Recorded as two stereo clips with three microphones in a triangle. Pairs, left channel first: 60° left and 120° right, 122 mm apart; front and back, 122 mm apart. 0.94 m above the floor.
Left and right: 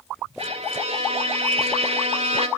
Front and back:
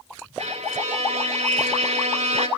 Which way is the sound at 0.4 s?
155° right.